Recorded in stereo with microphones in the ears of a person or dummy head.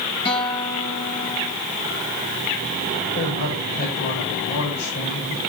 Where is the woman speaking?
50° left (ahead or behind), 6.5 m.